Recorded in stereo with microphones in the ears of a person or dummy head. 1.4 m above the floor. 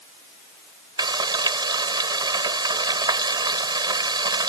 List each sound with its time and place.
1.0 s frying: 25° right (ahead or behind)